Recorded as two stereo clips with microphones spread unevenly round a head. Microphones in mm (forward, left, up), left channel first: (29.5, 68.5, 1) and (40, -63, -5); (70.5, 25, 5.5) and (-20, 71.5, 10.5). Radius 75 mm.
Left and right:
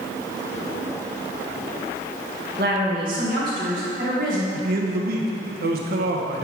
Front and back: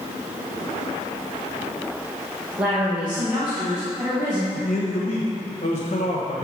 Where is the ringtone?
I don't hear a ringtone.